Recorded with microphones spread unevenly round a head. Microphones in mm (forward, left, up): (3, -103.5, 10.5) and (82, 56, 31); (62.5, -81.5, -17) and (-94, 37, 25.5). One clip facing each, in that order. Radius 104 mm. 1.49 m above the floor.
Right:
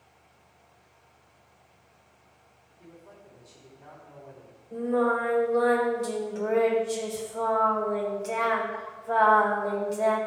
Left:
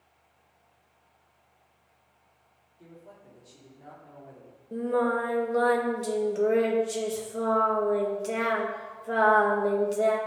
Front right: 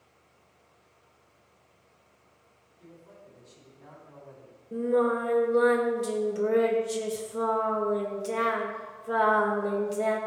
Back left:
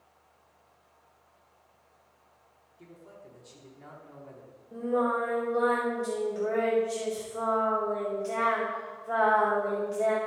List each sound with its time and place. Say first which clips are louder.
2.8 s a man speaking: even, back left 1 dB; 130° left, 3.5 m
4.7 s singing: right 1 dB, front right 3 dB; 10° left, 1.8 m